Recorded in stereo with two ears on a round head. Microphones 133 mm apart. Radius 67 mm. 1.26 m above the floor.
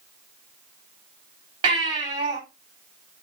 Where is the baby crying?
30° right (ahead or behind), 3 m.